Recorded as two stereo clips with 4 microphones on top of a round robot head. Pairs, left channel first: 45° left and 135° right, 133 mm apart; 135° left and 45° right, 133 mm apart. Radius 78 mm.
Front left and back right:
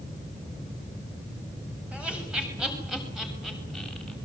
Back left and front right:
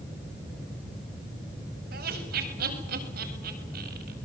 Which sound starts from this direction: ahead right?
Laughter, at 1.9 s.